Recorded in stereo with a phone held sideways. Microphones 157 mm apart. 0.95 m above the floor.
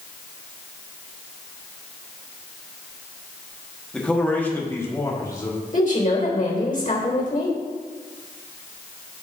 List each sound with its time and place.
3.9 s a man speaking: 5° left (ahead or behind), 1.7 m; by 5.6 s 25° left (ahead or behind), 2.5 m
5.7 s a woman speaking: 55° left (ahead or behind), 3 m